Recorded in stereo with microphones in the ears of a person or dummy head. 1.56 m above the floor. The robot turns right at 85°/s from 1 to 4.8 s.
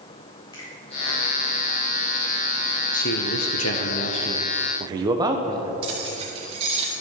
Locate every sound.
0.5 s a finger snap: 25° left (ahead or behind), 4 m
2.9 s a man speaking: 45° left, 1.2 m; by 5.7 s 155° right, 1.2 m
5.8 s keys jangling: 35° right (ahead or behind), 2.5 m